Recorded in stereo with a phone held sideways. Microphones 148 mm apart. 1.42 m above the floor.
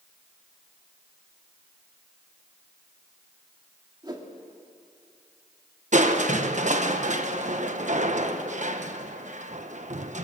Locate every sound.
4.0 s a whoosh: 30° right (ahead or behind), 2.5 m
5.9 s crushing: 55° right (ahead or behind), 1.3 m